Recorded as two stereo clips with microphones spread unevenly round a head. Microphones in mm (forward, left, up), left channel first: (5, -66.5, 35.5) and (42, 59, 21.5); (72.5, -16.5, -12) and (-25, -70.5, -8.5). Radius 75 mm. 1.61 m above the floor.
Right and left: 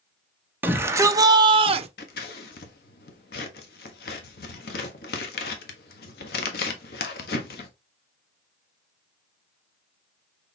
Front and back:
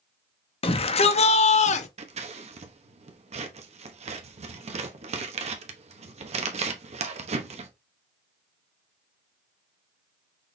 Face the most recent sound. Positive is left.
turn(degrees=-125)